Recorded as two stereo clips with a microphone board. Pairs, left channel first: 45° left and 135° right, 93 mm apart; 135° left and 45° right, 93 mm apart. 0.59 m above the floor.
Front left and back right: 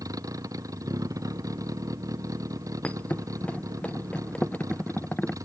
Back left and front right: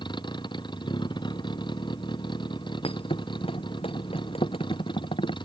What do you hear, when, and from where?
0.0 s a vehicle: 170° left
2.8 s a thud: 120° left